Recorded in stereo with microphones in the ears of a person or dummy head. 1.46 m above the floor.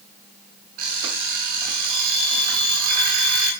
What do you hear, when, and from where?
0.8 s an alarm clock: 50° right (ahead or behind), 7 m